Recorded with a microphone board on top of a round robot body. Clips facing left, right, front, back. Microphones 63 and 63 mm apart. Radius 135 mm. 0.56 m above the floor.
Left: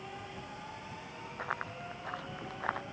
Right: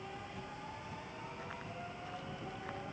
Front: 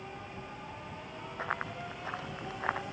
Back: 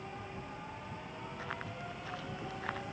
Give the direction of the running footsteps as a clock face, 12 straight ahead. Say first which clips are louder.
Left 11 dB, front 8 dB; 10 o'clock.